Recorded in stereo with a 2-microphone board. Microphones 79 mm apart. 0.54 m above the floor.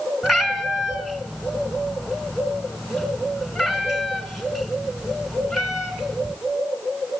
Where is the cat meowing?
5° right (ahead or behind), 2 m.